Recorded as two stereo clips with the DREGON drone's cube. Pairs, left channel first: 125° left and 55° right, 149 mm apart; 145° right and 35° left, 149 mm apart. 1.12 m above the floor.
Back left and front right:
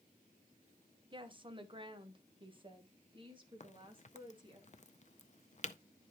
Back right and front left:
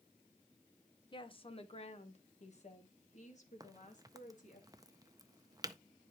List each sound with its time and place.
1.1 s a woman speaking: 100° right, 0.8 m; by 4.6 s 110° right, 2.5 m
3.6 s a crack: 95° left, 0.5 m